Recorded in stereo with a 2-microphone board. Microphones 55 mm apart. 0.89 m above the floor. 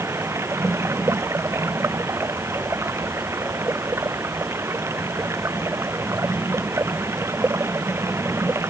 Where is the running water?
50° right (ahead or behind).